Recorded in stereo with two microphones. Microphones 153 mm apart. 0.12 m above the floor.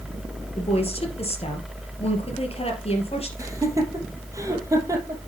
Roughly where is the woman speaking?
Left.